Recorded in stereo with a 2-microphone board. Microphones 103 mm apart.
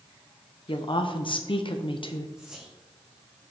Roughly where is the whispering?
Centre.